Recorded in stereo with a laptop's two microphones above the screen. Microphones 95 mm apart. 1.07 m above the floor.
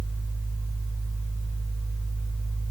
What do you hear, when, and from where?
0.0 s a fan: 65° right (ahead or behind), 2.5 m